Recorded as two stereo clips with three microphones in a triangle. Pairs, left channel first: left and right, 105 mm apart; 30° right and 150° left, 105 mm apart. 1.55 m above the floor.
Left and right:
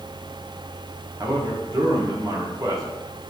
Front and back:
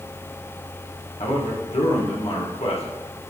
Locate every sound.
1.2 s a man speaking: 35° right, 1.8 m